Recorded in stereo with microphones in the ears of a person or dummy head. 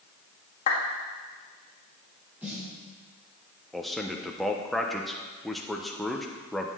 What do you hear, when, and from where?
0.7 s a clap: 45° left (ahead or behind), 1.8 m
2.4 s a snare drum: 5° right (ahead or behind), 5 m
3.7 s a man speaking: 5° right (ahead or behind), 1.0 m